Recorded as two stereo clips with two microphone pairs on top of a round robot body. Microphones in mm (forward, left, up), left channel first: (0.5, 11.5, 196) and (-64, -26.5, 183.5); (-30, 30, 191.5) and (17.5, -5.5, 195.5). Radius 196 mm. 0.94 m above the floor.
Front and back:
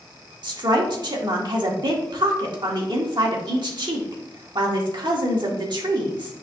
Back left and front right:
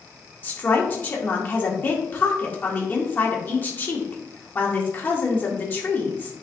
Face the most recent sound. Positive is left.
turn(degrees=-160)